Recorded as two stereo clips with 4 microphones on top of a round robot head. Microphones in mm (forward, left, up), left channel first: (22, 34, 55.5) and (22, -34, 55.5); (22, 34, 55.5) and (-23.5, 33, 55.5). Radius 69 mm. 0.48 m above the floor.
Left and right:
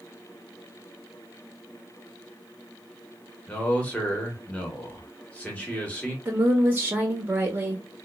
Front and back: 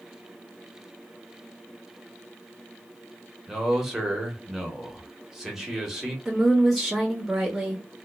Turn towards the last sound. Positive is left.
turn(degrees=-95)